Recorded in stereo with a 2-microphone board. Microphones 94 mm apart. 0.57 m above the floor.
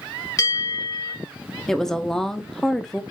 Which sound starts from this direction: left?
A bell, at 0.4 s.